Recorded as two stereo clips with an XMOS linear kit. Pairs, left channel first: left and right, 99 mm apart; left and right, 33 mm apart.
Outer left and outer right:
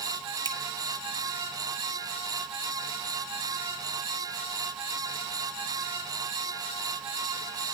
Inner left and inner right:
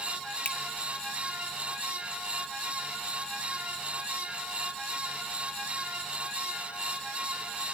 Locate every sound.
0.5 s a finger snap: 45° left (ahead or behind), 1.8 m